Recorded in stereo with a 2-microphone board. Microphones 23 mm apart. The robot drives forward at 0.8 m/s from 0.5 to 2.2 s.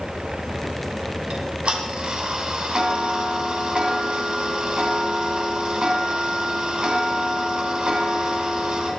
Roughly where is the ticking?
Right.